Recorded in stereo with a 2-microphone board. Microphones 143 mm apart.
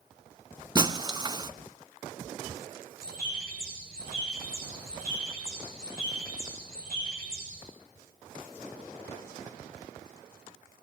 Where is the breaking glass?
25° right (ahead or behind), 0.7 m.